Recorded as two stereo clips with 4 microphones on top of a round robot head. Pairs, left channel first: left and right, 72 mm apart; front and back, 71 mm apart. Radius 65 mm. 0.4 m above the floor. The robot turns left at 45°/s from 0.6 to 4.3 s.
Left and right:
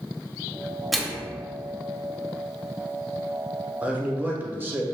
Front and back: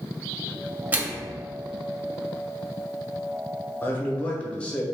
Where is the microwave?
Straight behind, 0.8 m; by 1.3 s 165° left, 0.8 m.